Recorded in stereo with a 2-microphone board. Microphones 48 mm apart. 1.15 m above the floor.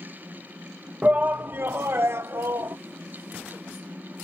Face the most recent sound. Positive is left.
turn(degrees=-75)  # may be behind; listen again after turning